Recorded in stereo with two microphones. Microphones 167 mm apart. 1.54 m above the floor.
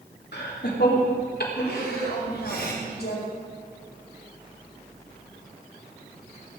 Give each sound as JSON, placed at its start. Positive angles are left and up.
{"t": 0.3, "sound": "laughter", "side_deg": 80, "distance_m": 3.0}
{"t": 1.7, "sound": "a woman speaking", "side_deg": 80, "distance_m": 5.0}